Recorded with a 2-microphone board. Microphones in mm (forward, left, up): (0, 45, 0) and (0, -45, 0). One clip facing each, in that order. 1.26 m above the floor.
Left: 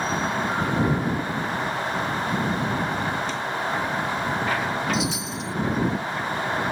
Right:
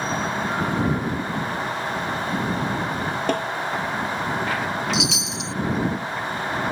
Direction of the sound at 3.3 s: 55° right (ahead or behind).